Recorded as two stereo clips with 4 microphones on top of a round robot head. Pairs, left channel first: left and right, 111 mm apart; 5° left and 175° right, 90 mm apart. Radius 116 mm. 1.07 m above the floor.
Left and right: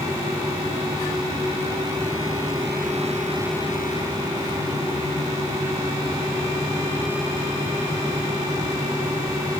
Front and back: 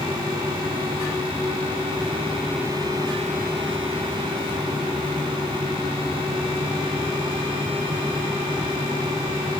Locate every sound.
Only background noise.